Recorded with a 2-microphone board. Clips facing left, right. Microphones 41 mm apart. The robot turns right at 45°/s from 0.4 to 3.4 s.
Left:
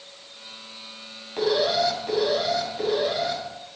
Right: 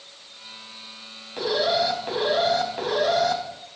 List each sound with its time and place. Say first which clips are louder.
1.4 s an alarm: left 1 dB; 175° left, 3 m; by 3.4 s 95° right, 3 m